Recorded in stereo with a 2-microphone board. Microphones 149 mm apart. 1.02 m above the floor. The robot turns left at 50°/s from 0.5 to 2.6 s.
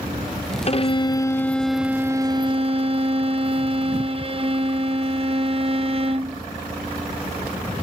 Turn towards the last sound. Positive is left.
turn(degrees=-45)